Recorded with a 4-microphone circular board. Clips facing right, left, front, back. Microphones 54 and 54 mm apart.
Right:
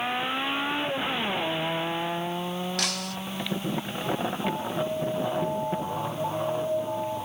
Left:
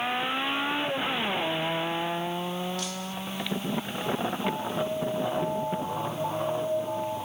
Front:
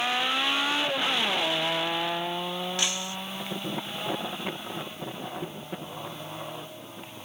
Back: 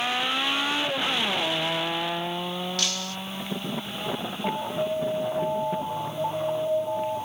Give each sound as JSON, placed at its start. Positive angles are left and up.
{"t": 2.8, "sound": "breaking glass", "azimuth_deg": -70}
{"t": 4.4, "sound": "an alarm", "azimuth_deg": 180}